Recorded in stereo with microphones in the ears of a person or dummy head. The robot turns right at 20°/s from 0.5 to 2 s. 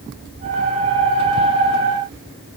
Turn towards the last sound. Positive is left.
No sound to turn to.